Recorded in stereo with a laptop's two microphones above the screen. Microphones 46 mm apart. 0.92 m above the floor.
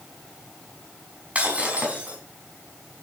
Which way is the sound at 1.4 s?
25° right (ahead or behind).